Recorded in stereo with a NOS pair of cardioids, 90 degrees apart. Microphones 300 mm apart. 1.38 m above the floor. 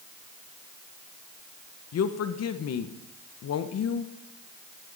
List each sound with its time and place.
1.9 s a woman speaking: 55° left, 1.1 m